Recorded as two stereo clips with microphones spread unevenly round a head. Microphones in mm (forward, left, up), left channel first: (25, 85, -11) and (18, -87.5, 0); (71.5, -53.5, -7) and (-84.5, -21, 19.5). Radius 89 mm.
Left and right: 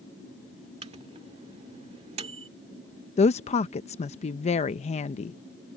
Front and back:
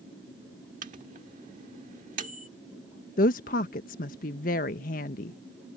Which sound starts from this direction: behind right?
A microwave, at 0.8 s.